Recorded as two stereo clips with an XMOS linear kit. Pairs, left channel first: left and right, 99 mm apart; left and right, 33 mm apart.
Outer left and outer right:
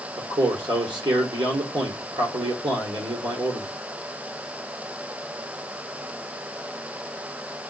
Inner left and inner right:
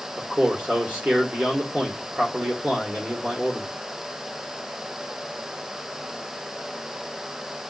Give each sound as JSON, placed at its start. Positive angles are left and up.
{"t": 0.2, "sound": "a man speaking", "side_deg": -55, "distance_m": 1.6}